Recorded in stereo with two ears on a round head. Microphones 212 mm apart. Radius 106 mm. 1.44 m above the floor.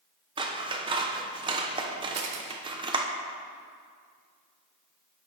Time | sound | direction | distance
0.4 | scissors | 20° right (ahead or behind) | 0.9 m
2.1 | a camera shutter | 70° right (ahead or behind) | 1.7 m